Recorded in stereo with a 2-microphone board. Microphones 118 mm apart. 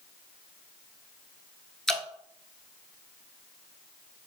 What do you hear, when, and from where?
1.9 s dripping: 5° left (ahead or behind), 0.7 m